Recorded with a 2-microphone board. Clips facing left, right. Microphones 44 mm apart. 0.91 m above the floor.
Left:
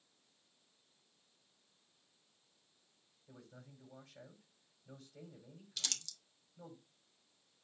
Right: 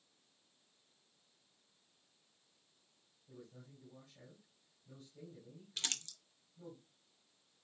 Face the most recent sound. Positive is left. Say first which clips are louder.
# right 2 dB
turn(degrees=-35)  # may be behind; listen again after turning